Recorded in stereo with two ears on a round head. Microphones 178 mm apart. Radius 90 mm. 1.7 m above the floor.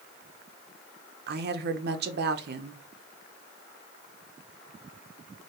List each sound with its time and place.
1.3 s a woman speaking: 55° right (ahead or behind), 0.6 m